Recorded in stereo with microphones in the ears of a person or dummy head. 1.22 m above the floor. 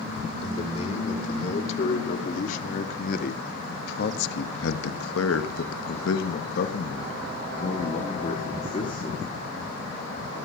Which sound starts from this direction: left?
A man speaking, at 0.4 s.